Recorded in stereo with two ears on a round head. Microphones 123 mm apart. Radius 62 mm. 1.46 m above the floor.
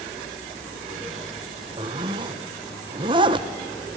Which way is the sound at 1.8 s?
30° right (ahead or behind).